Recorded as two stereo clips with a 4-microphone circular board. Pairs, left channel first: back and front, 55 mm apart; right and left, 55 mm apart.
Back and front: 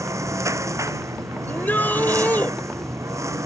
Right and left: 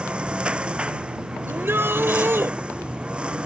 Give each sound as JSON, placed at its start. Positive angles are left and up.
{"t": 0.0, "sound": "a lawn mower", "azimuth_deg": 20}
{"t": 1.5, "sound": "a shout", "azimuth_deg": 130}